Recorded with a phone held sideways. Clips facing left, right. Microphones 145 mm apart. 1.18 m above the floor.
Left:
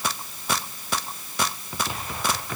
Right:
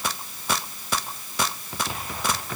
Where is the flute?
No flute in this recording.